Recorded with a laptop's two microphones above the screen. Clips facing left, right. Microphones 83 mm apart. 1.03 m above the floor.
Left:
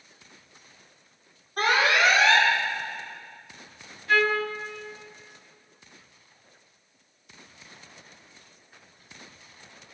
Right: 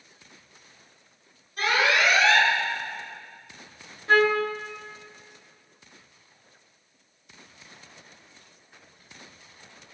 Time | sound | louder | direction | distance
1.6 | an alarm | left 1 dB | 60° left (ahead or behind) | 6 m
4.1 | a trumpet | right 3 dB | 35° right (ahead or behind) | 1.2 m